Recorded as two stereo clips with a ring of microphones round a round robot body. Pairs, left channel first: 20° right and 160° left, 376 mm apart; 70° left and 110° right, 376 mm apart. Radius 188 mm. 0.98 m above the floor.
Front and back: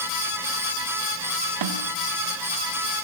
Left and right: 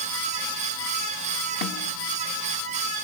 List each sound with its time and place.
1.6 s a snare drum: 130° left, 1.5 m